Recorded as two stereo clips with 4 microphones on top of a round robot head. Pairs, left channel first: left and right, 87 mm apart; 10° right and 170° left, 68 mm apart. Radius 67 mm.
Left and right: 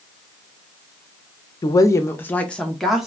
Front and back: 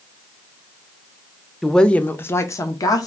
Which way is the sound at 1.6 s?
75° left.